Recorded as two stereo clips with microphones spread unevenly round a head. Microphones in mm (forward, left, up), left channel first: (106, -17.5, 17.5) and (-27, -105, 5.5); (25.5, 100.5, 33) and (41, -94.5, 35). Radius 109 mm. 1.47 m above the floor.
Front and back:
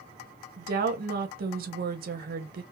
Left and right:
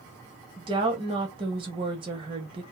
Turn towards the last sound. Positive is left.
turn(degrees=-150)